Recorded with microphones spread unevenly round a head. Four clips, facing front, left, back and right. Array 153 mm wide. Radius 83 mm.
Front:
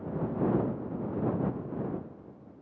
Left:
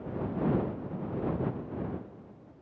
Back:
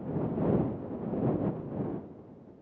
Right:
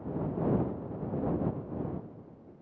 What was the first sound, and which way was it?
Only background noise.